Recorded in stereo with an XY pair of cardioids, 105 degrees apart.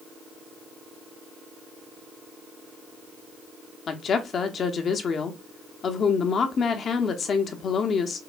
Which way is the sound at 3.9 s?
50° left.